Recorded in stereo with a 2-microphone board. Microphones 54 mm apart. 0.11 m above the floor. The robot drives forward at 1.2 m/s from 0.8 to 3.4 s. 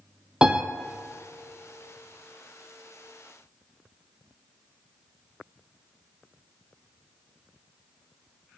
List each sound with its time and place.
0.4 s a piano: 15° right (ahead or behind), 1.1 m